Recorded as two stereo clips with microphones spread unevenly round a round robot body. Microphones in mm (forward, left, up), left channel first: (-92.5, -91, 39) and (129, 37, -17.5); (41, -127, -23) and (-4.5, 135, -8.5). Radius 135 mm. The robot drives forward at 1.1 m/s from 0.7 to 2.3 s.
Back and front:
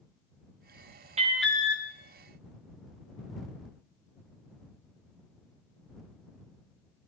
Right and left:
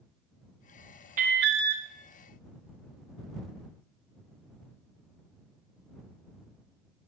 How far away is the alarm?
About 0.6 m.